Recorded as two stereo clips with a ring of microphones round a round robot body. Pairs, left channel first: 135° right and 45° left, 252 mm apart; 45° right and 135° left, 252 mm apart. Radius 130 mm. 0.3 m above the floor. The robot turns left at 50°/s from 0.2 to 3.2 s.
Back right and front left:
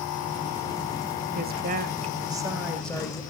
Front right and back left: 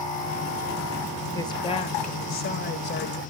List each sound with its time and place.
1.3 s a woman speaking: 30° left, 1.3 m; by 3.2 s 65° right, 1.3 m